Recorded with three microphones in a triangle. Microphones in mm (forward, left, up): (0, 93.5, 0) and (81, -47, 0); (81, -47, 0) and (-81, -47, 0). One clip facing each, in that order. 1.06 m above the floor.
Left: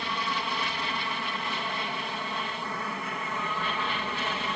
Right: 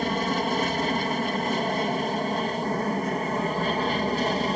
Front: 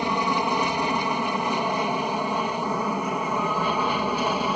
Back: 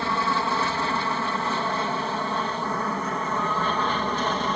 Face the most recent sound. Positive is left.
turn(degrees=-75)